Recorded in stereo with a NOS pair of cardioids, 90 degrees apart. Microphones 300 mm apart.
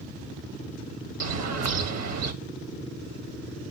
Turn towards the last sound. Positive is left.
turn(degrees=-60)